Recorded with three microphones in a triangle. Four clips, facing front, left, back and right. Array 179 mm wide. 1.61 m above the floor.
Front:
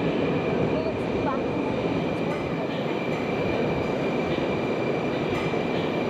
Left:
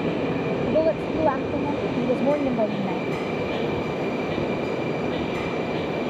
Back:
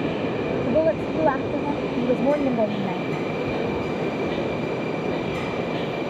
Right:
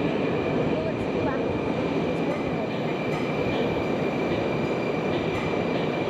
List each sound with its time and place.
0.7 s a woman speaking: 140° left; by 3.0 s 145° left